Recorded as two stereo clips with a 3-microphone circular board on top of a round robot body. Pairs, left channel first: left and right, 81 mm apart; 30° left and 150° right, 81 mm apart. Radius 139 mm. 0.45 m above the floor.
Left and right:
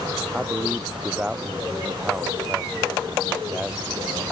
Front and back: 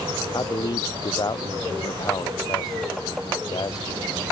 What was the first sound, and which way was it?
A man speaking, 15° right.